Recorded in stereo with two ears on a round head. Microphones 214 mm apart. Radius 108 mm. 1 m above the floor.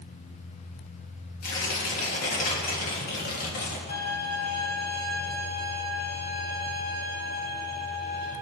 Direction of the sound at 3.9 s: 40° left (ahead or behind).